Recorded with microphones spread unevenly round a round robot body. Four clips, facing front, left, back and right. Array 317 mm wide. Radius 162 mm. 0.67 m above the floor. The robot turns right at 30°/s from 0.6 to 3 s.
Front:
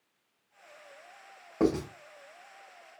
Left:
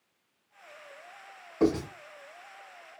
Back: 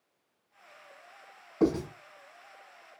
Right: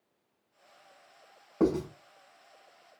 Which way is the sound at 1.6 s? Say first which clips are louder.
Left 1 dB, back 1 dB; 35° right.